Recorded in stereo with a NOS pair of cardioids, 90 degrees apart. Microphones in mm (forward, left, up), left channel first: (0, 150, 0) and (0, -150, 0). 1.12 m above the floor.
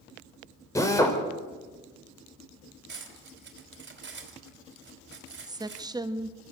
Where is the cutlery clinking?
40° right, 3.5 m.